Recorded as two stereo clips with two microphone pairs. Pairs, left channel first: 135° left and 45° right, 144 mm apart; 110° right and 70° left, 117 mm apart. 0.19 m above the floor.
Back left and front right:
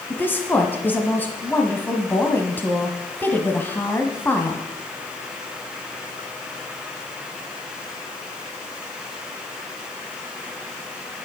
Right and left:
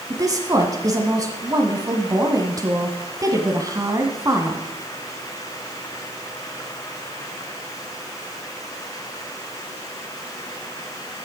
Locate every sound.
0.1 s a woman speaking: 70° left, 1.4 m